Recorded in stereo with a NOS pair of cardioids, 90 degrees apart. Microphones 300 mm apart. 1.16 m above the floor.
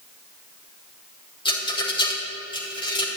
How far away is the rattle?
About 4.5 m.